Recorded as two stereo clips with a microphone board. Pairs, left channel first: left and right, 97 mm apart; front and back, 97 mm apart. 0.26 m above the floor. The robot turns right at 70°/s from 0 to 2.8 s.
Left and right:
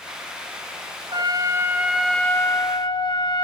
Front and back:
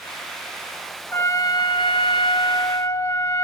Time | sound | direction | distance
1.1 | a trumpet | 75° right | 1.5 m